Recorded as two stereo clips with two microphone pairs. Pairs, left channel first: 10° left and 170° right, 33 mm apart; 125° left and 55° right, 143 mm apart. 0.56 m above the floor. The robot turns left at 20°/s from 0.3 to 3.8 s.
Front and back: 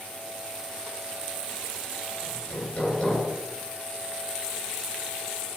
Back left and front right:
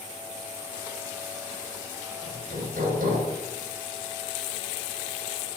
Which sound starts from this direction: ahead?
Hammering, at 2.2 s.